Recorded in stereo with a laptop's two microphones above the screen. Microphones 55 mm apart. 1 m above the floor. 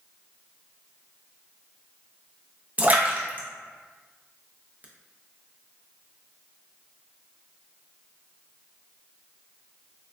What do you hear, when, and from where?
2.8 s a splash: 30° right (ahead or behind), 0.6 m